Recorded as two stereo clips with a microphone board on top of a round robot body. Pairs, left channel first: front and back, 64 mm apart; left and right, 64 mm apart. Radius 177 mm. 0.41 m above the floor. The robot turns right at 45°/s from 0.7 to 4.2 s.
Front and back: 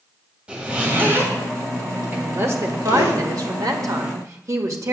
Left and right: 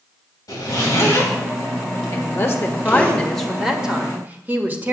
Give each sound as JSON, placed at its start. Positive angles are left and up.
{"t": 0.5, "sound": "a zipper", "azimuth_deg": 110, "distance_m": 2.5}
{"t": 2.1, "sound": "a woman speaking", "azimuth_deg": 115, "distance_m": 1.7}